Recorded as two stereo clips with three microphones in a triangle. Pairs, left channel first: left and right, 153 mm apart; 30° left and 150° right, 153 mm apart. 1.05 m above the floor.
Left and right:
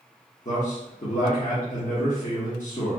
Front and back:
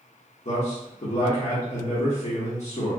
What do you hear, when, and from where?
0.5 s a man speaking: 65° left, 1.1 m